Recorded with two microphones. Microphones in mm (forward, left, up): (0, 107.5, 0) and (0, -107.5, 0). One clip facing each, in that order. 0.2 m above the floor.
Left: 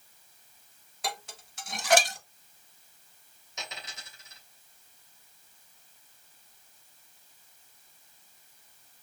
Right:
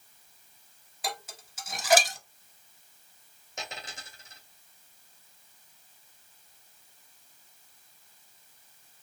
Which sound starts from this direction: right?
A dropped coin, at 3.6 s.